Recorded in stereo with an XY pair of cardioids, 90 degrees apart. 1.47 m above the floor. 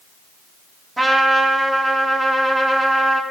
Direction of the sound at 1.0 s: 20° right.